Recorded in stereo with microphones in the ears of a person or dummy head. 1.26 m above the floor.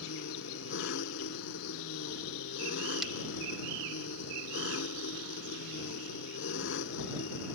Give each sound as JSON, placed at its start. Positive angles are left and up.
{"t": 0.0, "sound": "an engine running", "side_deg": 65}
{"t": 3.0, "sound": "breaking glass", "side_deg": 0}